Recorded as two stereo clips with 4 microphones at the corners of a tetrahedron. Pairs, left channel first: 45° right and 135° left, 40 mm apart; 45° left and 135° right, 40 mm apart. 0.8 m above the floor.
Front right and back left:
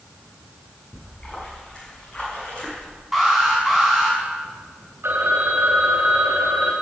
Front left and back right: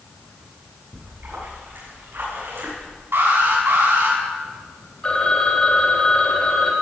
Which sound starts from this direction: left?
A phone ringing, at 5.0 s.